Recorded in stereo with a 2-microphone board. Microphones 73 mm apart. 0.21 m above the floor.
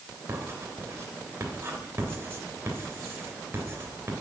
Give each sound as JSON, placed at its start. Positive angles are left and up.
{"t": 0.3, "sound": "writing", "side_deg": -35, "distance_m": 3.0}